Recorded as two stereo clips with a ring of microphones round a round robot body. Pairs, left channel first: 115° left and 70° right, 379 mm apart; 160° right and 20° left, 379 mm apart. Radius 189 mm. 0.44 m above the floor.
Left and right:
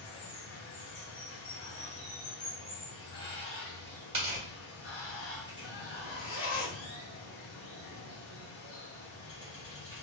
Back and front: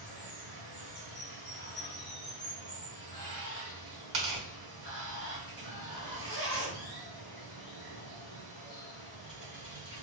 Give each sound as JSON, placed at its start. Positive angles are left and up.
{"t": 0.0, "sound": "running water", "azimuth_deg": 70, "distance_m": 1.1}
{"t": 4.1, "sound": "tearing paper", "azimuth_deg": 5, "distance_m": 1.2}
{"t": 5.9, "sound": "a zipper", "azimuth_deg": 60, "distance_m": 1.4}